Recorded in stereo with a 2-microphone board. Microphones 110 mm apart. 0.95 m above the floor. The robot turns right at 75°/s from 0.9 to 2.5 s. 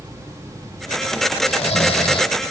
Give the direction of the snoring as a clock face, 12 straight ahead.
10 o'clock.